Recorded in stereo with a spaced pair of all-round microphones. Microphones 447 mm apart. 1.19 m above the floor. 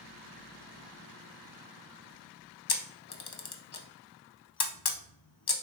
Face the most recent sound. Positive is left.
turn(degrees=60)  # may be behind; listen again after turning